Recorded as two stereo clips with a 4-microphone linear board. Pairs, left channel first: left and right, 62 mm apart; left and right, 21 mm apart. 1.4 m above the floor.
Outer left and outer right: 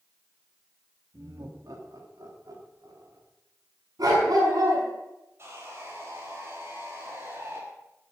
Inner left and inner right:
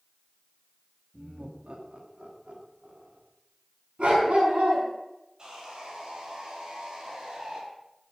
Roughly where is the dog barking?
Right.